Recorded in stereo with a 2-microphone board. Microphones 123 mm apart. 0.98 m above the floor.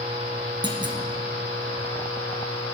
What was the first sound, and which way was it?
A clunk, 40° right (ahead or behind).